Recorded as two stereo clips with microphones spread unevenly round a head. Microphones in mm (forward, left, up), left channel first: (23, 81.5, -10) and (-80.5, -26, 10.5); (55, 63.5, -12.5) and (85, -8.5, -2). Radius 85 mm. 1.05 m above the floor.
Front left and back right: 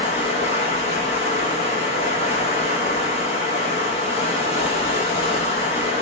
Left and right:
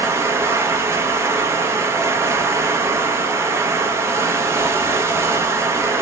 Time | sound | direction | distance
0.0 | running water | 5° right | 0.7 m